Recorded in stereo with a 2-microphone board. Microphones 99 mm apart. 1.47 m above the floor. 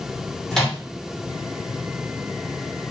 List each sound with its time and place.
0.5 s a microwave: 5° left (ahead or behind), 1.0 m